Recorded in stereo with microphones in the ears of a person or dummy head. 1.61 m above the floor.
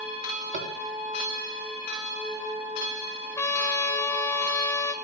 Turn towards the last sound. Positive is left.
turn(degrees=15)  # may be behind; listen again after turning